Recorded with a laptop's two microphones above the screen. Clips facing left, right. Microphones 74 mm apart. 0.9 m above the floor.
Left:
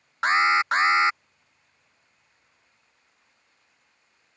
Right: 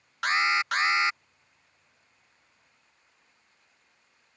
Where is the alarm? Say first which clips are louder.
Left 5 dB; 30° left (ahead or behind).